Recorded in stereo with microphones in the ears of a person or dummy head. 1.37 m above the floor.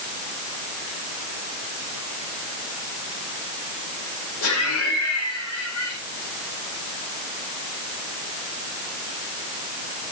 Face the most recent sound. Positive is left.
turn(degrees=85)